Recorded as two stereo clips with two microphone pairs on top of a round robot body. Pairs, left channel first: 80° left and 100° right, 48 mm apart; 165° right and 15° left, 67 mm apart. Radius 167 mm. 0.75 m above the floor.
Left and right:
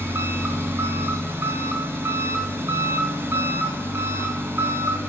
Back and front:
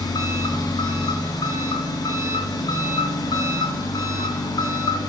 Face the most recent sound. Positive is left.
turn(degrees=-145)